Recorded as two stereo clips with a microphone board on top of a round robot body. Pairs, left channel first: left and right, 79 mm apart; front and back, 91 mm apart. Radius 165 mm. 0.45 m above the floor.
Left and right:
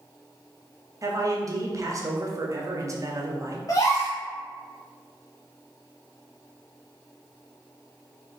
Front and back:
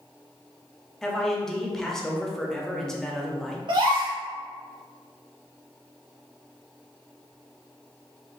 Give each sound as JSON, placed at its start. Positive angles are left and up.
{"t": 1.0, "sound": "a man speaking", "azimuth_deg": -85, "distance_m": 0.9}
{"t": 3.7, "sound": "a gasp", "azimuth_deg": 140, "distance_m": 0.7}